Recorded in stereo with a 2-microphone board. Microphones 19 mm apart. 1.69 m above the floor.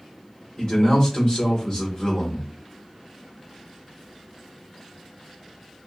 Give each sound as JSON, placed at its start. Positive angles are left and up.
{"t": 0.6, "sound": "a man speaking", "side_deg": 45, "distance_m": 1.3}